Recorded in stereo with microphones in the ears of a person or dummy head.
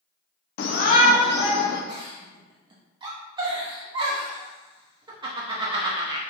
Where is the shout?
55° left (ahead or behind), 0.8 m; by 1.8 s 30° left (ahead or behind), 2 m.